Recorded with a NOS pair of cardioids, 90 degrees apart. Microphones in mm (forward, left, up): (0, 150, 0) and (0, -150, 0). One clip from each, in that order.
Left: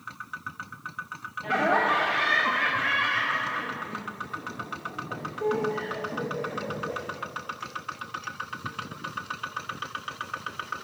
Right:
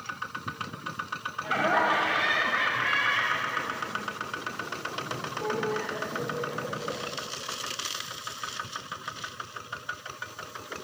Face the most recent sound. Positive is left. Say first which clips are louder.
# left 1 dB
turn(degrees=20)